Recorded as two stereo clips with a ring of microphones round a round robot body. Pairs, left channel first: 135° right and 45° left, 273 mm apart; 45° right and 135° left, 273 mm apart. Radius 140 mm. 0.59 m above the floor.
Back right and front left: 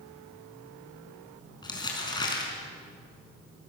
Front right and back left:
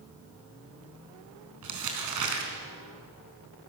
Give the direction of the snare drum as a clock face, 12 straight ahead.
I don't hear a snare drum.